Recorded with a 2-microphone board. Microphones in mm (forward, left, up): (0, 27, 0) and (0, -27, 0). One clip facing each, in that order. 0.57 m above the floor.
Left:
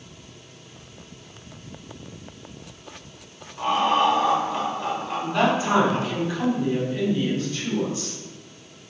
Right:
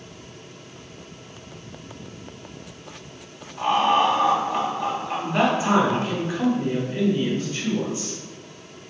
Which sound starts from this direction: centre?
Laughter, at 3.6 s.